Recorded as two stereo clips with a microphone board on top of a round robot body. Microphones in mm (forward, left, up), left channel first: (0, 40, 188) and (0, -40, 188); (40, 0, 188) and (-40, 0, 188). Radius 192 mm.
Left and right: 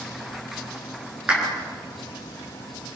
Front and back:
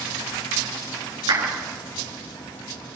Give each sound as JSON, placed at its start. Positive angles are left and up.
{"t": 1.3, "sound": "a clap", "azimuth_deg": -165, "distance_m": 7.0}